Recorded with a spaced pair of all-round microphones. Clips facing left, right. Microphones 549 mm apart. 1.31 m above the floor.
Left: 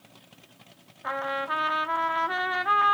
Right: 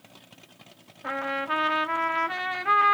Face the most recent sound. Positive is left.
turn(degrees=-50)  # may be behind; listen again after turning